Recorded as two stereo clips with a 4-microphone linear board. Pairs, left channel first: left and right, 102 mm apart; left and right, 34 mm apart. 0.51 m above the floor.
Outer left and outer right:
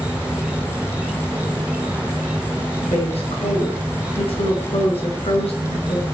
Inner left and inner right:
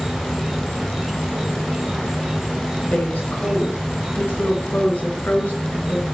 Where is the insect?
10° right (ahead or behind), 1.7 m.